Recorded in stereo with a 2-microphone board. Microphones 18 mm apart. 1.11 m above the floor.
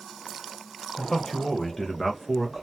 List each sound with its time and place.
1.0 s a man speaking: 40° left (ahead or behind), 1.1 m; by 2.6 s 15° right (ahead or behind), 0.8 m